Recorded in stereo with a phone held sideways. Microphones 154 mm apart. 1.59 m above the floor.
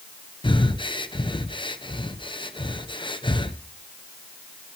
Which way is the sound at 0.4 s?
30° left (ahead or behind).